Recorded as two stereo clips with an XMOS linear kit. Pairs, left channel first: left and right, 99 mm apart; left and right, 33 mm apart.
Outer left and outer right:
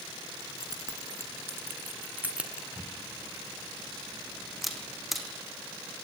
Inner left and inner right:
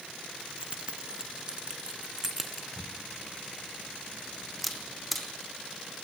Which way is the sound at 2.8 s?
Centre (ahead or behind).